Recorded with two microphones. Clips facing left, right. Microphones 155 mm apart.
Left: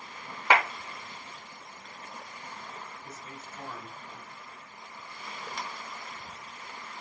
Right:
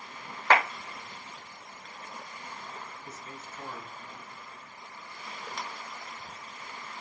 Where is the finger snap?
Centre (ahead or behind), 0.9 m.